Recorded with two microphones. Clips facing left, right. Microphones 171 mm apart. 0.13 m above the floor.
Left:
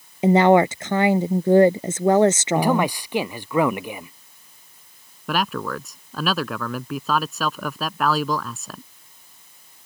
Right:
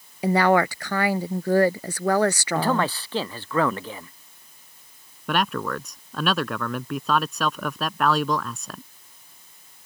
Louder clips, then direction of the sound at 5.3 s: Even; centre (ahead or behind).